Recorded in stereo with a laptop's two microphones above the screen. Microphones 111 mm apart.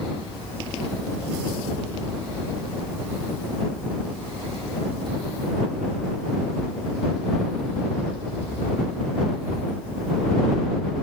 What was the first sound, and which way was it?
Only background noise.